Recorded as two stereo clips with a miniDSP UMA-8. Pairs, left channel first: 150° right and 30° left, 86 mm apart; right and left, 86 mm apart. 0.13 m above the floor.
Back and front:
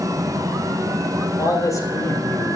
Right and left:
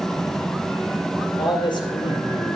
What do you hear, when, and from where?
1.4 s a man speaking: 105° right, 3.5 m; by 2.6 s 90° right, 3 m